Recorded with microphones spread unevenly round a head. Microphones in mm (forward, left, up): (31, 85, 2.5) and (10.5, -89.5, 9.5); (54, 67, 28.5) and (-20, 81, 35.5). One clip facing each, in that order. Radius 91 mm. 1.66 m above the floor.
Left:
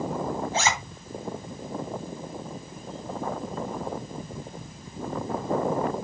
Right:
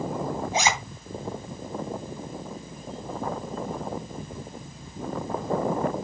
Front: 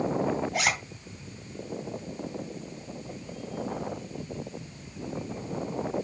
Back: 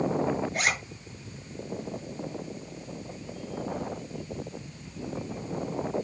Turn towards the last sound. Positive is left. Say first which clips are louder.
# right 2 dB, front 1 dB
turn(degrees=-25)